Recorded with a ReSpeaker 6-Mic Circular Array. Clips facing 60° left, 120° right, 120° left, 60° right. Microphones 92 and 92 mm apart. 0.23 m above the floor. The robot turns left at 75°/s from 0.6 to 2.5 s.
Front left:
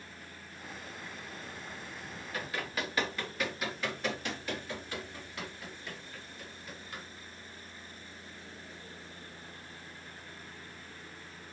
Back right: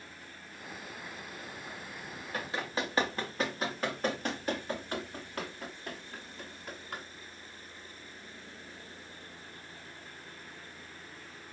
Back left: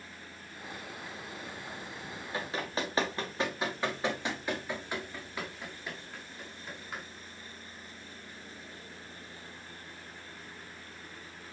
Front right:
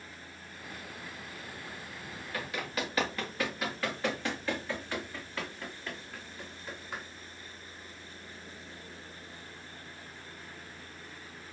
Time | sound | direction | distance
2.3 | running footsteps | 170° right | 3 m